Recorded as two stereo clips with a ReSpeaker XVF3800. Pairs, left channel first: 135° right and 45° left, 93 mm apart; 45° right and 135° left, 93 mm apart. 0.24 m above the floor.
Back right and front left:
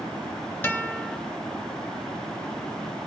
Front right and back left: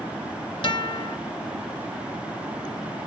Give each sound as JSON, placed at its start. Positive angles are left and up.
{"t": 0.6, "sound": "a guitar", "azimuth_deg": -65, "distance_m": 1.3}